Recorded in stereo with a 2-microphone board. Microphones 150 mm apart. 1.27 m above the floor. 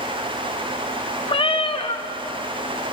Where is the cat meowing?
35° left (ahead or behind), 0.6 m.